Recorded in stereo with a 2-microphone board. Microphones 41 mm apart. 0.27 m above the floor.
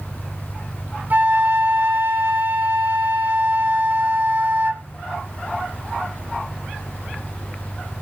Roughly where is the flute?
Right.